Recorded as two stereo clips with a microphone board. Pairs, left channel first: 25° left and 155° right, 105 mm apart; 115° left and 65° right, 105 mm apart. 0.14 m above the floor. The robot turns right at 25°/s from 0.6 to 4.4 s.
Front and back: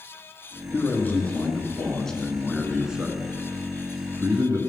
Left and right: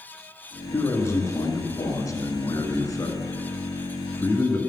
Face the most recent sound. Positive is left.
turn(degrees=160)